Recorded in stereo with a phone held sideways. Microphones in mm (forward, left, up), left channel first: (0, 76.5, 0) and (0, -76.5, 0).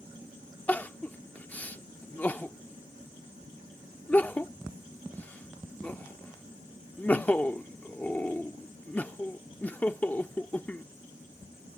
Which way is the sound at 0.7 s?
10° left (ahead or behind).